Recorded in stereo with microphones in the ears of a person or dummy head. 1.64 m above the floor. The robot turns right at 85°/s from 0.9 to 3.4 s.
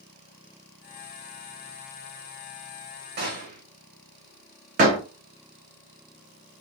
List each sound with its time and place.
3.2 s a gunshot: 45° right (ahead or behind), 1.1 m; by 3.6 s 50° right (ahead or behind), 1.1 m
4.8 s a door slam: 40° right (ahead or behind), 1.1 m